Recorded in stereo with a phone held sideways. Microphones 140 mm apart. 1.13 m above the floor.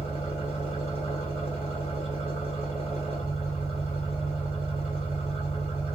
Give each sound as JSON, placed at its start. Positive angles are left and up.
{"t": 0.0, "sound": "an engine running", "side_deg": 45, "distance_m": 5.5}